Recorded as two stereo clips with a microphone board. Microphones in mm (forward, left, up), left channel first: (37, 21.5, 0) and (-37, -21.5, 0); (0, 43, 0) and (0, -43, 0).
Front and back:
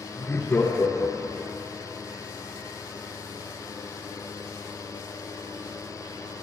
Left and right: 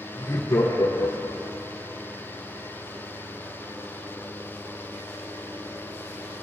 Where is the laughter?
80° left, 2.5 m; by 1.6 s 60° left, 3.5 m.